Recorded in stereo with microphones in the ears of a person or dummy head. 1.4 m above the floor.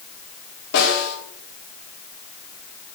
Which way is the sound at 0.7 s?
75° left (ahead or behind).